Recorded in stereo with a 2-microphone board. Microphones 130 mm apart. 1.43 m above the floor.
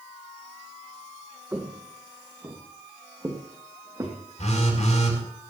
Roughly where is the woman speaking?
No woman speaking in this recording.